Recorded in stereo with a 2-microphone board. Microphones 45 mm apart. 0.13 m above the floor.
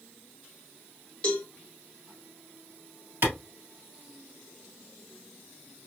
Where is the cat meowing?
I don't hear a cat meowing.